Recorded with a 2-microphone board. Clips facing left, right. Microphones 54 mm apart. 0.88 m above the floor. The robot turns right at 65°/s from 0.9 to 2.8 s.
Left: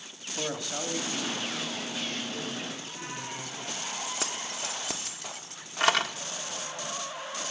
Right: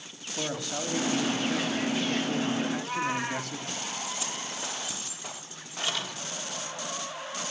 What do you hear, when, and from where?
0.4 s a man speaking: 175° left, 1.9 m; by 3.7 s 60° right, 1.9 m
2.7 s a cat meowing: 70° right (ahead or behind), 2 m; by 3.5 s 75° right (ahead or behind), 2 m
4.1 s keys jangling: 55° left (ahead or behind), 1.1 m